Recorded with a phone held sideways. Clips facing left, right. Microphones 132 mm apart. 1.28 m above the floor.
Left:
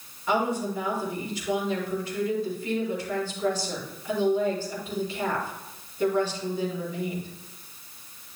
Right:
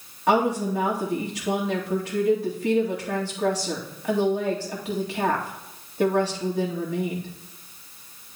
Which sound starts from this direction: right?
A woman speaking, at 0.3 s.